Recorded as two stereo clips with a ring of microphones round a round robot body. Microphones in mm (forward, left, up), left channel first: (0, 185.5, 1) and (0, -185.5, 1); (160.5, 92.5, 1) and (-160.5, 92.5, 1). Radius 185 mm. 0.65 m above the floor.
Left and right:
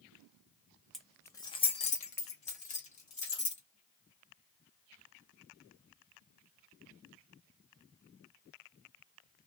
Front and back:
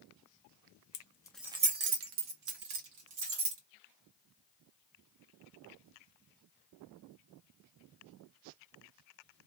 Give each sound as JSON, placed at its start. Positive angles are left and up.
{"t": 0.9, "sound": "keys jangling", "azimuth_deg": 0, "distance_m": 0.6}